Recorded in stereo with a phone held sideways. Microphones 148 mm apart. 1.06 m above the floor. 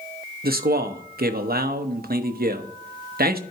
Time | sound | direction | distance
0.4 | a man speaking | 85° right | 0.8 m